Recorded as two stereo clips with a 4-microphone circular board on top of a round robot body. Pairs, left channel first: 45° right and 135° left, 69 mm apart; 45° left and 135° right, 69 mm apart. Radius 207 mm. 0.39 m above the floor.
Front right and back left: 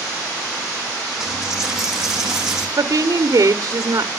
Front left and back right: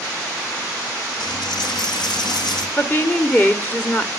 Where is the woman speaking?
105° left, 1.7 m.